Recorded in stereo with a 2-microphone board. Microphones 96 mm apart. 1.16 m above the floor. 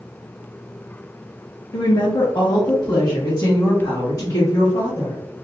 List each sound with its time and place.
1.7 s a woman speaking: 45° left (ahead or behind), 0.6 m; by 5.2 s 35° left (ahead or behind), 2.5 m